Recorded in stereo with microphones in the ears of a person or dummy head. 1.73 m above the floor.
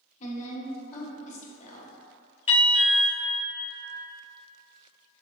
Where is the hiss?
I don't hear a hiss.